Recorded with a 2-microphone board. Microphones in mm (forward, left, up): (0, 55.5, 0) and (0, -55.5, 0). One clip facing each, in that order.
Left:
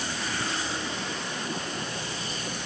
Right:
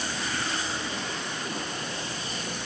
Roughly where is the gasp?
I don't hear a gasp.